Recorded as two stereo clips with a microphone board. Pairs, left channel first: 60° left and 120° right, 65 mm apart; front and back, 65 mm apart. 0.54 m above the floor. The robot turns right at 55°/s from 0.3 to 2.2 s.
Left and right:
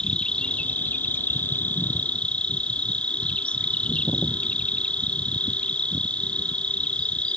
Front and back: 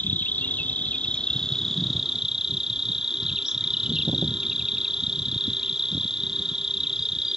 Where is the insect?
5° left; by 7.4 s 110° left.